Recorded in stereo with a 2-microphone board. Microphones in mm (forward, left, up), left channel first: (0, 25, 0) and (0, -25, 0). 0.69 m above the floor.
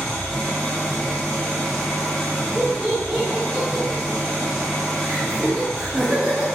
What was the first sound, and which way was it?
An engine running, 15° left (ahead or behind).